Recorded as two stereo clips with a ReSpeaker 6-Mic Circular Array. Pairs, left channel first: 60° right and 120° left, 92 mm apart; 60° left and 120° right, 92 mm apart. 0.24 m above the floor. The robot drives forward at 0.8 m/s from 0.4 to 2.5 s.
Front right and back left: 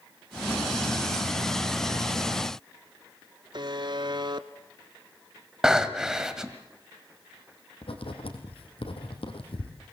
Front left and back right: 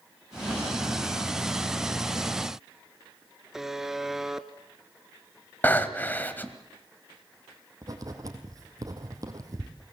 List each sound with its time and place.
3.5 s a buzzer: 155° left, 1.0 m
5.6 s breathing: 50° left, 1.5 m
7.8 s writing: 70° right, 3.5 m